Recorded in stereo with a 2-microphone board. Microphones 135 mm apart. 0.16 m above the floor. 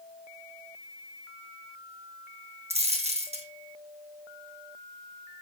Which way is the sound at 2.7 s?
50° right (ahead or behind).